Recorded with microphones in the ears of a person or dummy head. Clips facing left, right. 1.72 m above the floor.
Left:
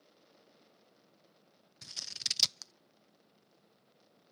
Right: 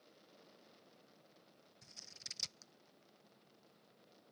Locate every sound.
1.8 s scissors: 80° left